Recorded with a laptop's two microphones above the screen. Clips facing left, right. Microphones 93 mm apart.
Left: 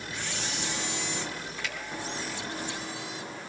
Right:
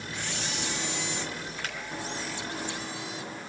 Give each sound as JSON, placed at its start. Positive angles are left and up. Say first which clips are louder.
{"t": 1.6, "sound": "a finger snap", "louder": "left 1 dB", "side_deg": -50, "distance_m": 4.0}